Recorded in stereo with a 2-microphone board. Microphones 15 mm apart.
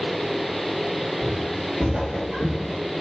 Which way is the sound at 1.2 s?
60° right (ahead or behind).